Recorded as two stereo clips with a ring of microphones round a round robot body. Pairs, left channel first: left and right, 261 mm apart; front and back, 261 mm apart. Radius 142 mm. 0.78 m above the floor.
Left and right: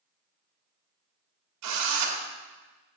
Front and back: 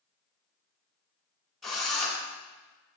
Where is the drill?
90° right, 2 m.